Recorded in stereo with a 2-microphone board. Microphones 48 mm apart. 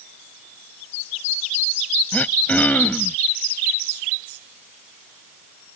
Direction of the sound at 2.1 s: 30° left (ahead or behind).